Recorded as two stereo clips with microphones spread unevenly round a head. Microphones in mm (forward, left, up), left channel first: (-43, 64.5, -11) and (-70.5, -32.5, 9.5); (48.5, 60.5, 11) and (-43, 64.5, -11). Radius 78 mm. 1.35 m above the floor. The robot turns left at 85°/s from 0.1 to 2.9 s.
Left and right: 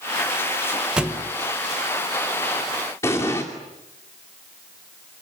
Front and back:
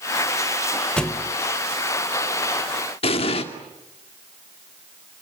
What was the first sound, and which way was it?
A thud, 50° right.